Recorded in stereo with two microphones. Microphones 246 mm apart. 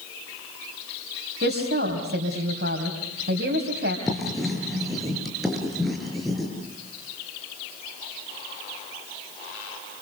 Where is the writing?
Centre (ahead or behind), 5.5 m.